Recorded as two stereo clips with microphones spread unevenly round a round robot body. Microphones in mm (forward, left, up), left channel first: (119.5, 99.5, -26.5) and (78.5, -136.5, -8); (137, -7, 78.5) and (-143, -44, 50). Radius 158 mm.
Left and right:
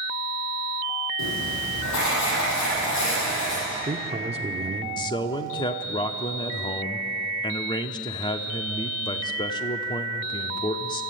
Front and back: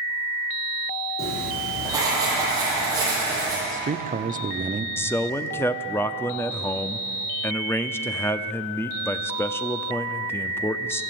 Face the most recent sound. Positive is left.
turn(degrees=90)